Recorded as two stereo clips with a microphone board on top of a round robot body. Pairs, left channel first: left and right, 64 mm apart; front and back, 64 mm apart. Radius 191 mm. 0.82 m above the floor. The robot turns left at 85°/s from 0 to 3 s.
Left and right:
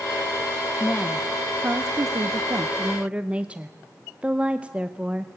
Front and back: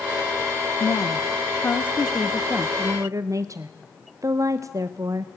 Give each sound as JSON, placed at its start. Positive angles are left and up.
{"t": 0.8, "sound": "a woman speaking", "azimuth_deg": 30, "distance_m": 0.7}